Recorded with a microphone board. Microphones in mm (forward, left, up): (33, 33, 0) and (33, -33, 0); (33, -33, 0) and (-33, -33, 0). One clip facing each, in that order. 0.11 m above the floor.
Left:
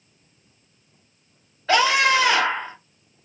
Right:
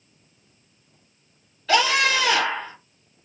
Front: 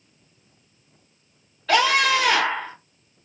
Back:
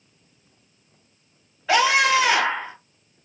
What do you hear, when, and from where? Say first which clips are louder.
1.7 s a scream: left 2 dB, back 1 dB; 115° left, 1.8 m